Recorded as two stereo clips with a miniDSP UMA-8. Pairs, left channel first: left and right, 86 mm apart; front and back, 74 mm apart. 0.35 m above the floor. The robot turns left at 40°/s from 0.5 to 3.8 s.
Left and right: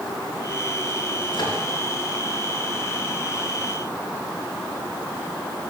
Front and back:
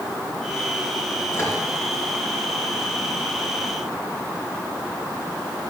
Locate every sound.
1.3 s a microwave: 60° left, 3.5 m; by 1.6 s 50° left, 3.5 m